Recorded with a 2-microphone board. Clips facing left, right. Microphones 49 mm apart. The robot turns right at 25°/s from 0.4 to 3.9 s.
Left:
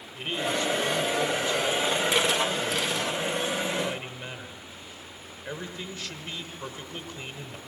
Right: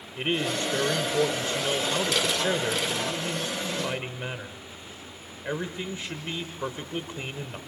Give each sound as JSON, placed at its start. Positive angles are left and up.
{"t": 0.2, "sound": "a man speaking", "azimuth_deg": -120, "distance_m": 1.7}